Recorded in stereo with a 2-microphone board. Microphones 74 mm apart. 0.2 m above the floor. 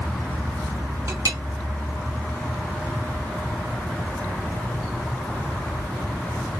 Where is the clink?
45° right (ahead or behind), 0.9 m.